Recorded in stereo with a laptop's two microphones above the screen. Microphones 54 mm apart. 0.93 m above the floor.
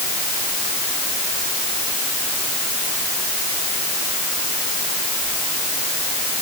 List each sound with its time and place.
Only background noise.